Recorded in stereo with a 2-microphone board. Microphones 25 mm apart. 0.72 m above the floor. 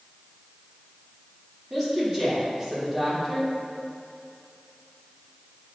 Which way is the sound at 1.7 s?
10° right (ahead or behind).